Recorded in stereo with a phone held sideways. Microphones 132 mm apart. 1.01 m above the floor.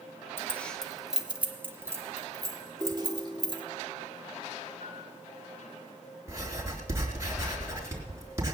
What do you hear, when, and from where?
0.4 s keys jangling: 15° left (ahead or behind), 1.0 m; by 3.6 s 35° right (ahead or behind), 2 m
2.8 s a ringtone: centre (ahead or behind), 1.5 m
4.8 s a piano: 75° left (ahead or behind), 8.5 m
6.3 s writing: 25° right (ahead or behind), 4 m